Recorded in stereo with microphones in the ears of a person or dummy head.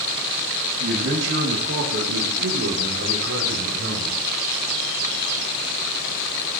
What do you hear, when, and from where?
0.8 s a man speaking: 70° right (ahead or behind), 2.5 m; by 4.2 s 75° right (ahead or behind), 4.5 m